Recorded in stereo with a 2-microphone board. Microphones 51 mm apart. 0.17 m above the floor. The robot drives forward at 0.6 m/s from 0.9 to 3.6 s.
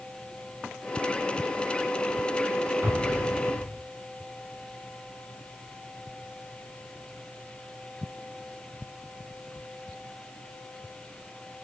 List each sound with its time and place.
2.8 s an explosion: 45° right (ahead or behind), 1.8 m